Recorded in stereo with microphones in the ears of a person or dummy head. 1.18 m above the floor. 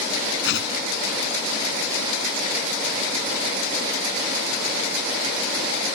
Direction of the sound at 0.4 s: 55° left (ahead or behind).